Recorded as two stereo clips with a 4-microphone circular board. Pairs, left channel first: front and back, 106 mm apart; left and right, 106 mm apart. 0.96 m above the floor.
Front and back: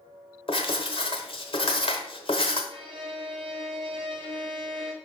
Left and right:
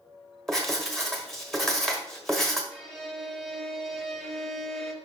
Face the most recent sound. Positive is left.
turn(degrees=180)